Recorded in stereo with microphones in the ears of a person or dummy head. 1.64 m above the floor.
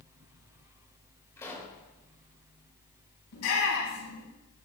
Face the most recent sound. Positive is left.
turn(degrees=85)